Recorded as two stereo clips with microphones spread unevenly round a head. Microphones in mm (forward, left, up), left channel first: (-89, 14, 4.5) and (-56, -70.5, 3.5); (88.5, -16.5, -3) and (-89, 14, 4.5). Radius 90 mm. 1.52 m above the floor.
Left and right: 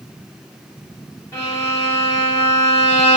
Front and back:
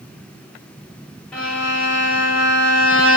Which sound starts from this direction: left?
A violin, at 1.3 s.